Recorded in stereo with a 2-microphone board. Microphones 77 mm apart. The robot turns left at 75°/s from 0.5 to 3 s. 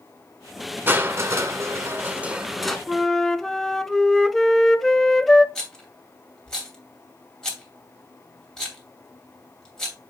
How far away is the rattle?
About 2.5 m.